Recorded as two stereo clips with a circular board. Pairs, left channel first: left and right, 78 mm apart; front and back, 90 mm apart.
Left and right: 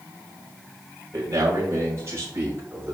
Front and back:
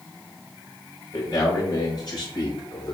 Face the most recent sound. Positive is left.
turn(degrees=-35)